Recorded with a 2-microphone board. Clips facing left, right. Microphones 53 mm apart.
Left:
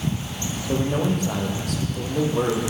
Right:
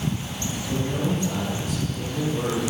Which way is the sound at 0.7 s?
70° left (ahead or behind).